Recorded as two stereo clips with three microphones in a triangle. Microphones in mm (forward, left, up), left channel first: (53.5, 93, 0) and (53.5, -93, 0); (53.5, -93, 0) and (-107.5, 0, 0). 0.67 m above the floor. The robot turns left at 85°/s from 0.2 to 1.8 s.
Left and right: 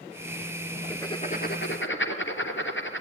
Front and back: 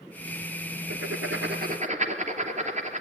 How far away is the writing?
About 3 m.